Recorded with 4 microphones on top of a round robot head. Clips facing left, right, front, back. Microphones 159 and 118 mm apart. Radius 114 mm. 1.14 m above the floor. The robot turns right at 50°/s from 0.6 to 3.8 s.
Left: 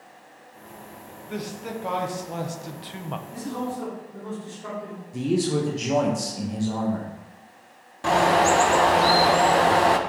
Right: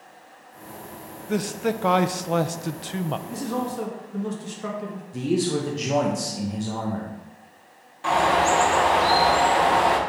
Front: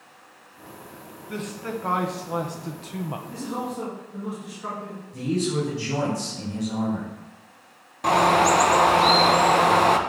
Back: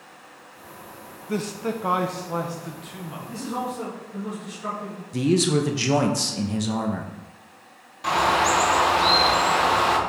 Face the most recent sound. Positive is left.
turn(degrees=45)